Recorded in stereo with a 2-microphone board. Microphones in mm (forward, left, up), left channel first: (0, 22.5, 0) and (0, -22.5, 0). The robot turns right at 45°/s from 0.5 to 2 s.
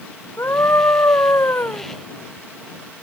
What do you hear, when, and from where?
0.4 s a scream: 65° left; by 1.8 s 125° left